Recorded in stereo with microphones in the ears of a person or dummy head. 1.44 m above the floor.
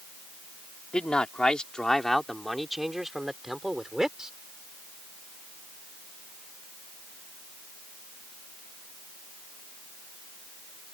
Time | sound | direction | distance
0.9 | a man speaking | 15° left (ahead or behind) | ?